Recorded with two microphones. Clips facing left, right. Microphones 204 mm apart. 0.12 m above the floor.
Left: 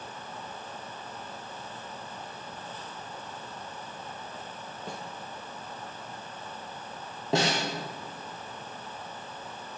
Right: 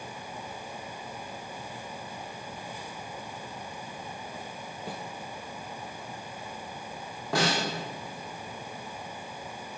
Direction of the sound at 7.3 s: 25° left (ahead or behind).